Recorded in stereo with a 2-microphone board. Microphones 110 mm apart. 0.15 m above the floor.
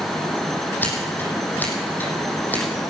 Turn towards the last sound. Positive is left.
turn(degrees=15)  # may be behind; listen again after turning